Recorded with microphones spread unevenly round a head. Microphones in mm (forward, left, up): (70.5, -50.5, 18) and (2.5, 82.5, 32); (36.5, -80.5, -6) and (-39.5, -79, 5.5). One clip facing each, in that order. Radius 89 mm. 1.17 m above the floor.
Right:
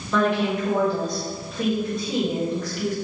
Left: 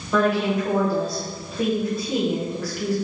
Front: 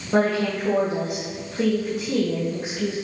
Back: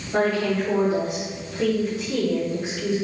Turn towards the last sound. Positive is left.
turn(degrees=30)